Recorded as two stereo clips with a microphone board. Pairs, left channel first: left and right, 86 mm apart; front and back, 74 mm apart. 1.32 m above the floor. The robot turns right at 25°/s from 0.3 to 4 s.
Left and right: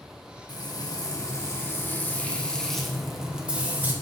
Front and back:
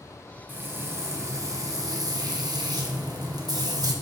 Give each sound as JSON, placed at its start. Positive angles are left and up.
{"t": 0.5, "sound": "frying", "azimuth_deg": 120, "distance_m": 1.1}